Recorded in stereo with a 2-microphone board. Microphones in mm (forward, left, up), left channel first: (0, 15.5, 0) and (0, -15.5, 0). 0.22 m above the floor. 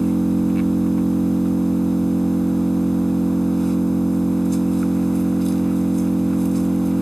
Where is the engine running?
5° left (ahead or behind), 0.9 m.